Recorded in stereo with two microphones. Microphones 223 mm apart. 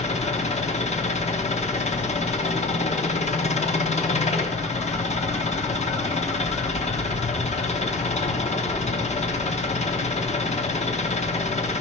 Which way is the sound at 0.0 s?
30° left (ahead or behind).